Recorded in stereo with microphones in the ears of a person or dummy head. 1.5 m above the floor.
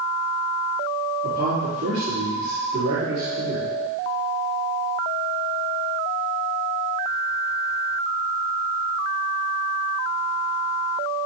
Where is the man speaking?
70° right (ahead or behind), 3.5 m.